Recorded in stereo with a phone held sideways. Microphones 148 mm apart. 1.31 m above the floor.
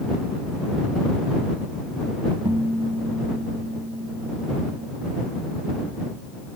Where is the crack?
I don't hear a crack.